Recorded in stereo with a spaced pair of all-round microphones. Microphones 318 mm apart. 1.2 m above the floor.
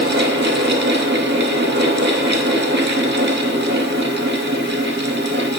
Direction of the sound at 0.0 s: 35° right (ahead or behind).